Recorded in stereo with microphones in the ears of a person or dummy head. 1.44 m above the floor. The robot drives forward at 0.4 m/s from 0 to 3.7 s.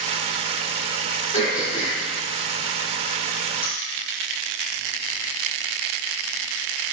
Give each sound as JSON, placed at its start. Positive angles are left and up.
{"t": 1.3, "sound": "throat clearing", "side_deg": 35, "distance_m": 4.0}